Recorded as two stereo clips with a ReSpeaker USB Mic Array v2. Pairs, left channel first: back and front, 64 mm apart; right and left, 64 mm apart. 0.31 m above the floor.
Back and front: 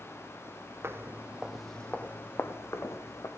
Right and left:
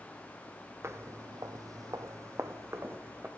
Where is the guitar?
I don't hear a guitar.